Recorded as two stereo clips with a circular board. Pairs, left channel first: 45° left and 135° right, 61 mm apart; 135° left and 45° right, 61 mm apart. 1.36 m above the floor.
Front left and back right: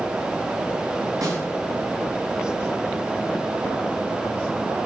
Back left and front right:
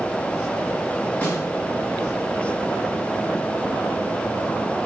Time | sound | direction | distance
1.2 | a snare drum | 165° right | 1.9 m